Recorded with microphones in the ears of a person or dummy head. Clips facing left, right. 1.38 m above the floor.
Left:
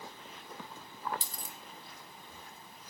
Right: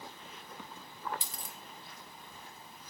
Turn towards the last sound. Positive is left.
turn(degrees=40)  # may be behind; listen again after turning